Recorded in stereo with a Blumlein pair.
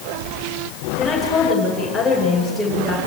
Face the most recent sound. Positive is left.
turn(degrees=0)